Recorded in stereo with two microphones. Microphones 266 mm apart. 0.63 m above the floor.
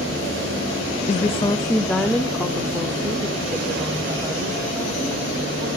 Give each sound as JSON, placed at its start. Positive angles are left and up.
{"t": 1.1, "sound": "a woman speaking", "side_deg": 30, "distance_m": 0.6}